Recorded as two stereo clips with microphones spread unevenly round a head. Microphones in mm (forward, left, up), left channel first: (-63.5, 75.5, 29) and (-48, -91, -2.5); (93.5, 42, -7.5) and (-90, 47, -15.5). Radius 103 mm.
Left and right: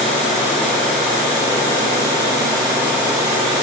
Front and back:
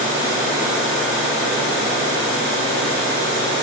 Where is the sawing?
I don't hear sawing.